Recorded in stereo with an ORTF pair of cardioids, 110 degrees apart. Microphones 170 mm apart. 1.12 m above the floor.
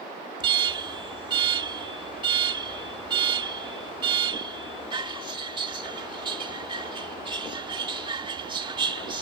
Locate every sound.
0.4 s an alarm: 25° right